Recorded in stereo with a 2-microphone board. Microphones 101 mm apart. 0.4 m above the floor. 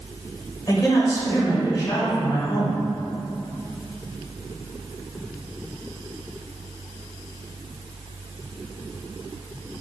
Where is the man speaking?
35° left (ahead or behind), 1.3 m.